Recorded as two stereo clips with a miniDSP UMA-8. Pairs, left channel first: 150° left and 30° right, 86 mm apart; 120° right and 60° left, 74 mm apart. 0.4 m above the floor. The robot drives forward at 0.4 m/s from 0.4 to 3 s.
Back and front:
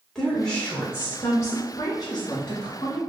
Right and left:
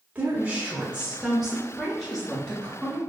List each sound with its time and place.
0.1 s a woman speaking: 85° left, 0.8 m; by 3.0 s 165° left, 1.3 m